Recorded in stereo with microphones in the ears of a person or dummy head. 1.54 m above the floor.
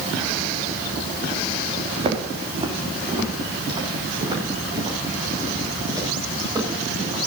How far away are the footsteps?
About 3.5 m.